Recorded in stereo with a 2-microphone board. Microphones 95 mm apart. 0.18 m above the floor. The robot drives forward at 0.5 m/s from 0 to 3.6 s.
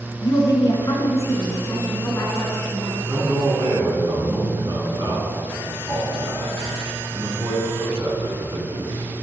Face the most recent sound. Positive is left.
turn(degrees=-45)  # may be behind; listen again after turning